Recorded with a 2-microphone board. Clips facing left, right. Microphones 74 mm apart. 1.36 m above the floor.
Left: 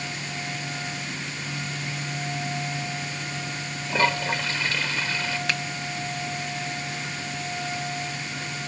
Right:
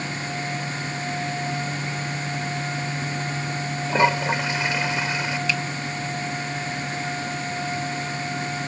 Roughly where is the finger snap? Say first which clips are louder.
Right 2 dB; left.